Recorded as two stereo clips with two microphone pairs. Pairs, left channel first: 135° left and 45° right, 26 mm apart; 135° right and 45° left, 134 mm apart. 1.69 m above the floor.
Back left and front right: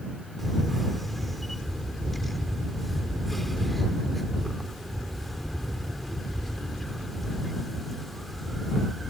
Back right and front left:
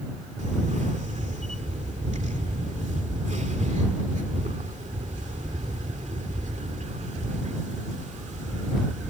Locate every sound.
0.4 s a camera shutter: 55° left